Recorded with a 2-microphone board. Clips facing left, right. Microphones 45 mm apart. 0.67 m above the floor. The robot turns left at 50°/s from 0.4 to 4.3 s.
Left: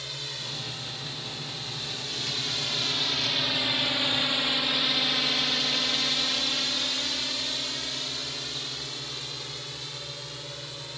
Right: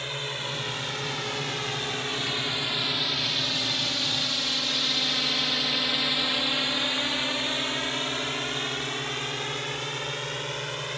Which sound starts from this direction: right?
A drone, at 0.0 s.